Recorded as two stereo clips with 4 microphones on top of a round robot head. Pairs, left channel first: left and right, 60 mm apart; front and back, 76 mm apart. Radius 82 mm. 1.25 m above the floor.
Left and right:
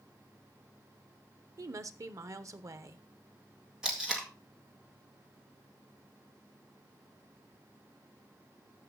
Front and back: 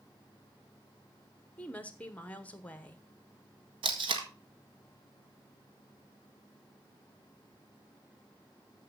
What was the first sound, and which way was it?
A woman speaking, 65° right.